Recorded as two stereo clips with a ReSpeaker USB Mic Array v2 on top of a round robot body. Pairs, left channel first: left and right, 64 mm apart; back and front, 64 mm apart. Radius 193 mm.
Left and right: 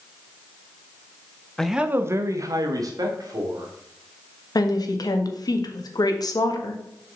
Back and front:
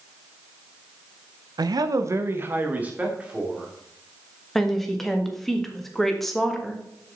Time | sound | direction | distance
1.6 | a man speaking | 10° left | 0.8 m
4.5 | a woman speaking | 95° left | 1.8 m